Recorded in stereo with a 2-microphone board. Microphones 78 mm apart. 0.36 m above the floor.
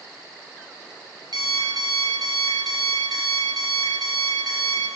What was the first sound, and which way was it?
An alarm clock, 65° right (ahead or behind).